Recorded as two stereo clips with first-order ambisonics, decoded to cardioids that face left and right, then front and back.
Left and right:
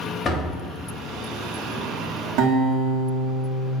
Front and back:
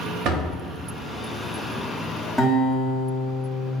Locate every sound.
0.2 s a door slam: 155° left, 0.9 m
2.4 s a guitar: 90° right, 1.1 m